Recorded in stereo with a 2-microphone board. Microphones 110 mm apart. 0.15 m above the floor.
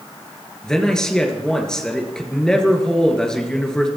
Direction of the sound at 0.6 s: 5° left (ahead or behind).